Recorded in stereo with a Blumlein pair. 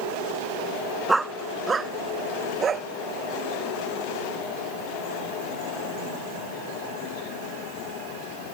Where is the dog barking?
5° right; by 2.9 s 20° right.